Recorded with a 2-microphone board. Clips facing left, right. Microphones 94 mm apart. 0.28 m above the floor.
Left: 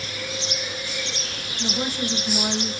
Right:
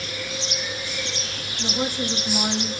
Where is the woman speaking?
15° right (ahead or behind), 1.0 m.